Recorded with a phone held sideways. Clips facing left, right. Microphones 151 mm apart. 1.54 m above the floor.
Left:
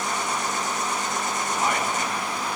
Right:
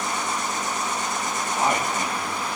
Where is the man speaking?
30° right (ahead or behind), 2.5 m.